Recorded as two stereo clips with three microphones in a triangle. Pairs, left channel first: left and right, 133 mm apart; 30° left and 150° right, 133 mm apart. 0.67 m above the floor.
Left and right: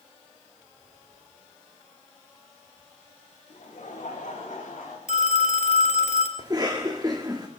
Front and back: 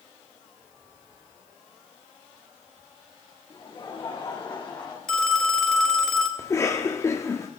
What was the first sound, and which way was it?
Laughter, 95° left.